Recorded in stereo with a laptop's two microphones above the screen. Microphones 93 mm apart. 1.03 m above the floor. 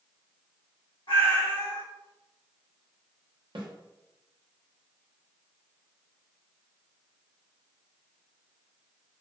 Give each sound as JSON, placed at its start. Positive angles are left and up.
{"t": 1.1, "sound": "a cat meowing", "side_deg": 75, "distance_m": 1.7}
{"t": 3.5, "sound": "a snare drum", "side_deg": -65, "distance_m": 0.6}